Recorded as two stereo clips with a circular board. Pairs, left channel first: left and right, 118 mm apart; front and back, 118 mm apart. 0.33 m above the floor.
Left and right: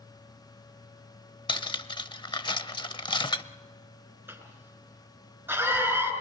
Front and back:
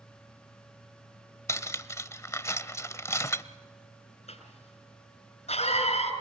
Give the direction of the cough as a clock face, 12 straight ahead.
1 o'clock.